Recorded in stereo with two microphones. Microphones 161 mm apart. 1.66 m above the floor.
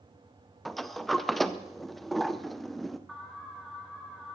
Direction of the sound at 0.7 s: Centre (ahead or behind).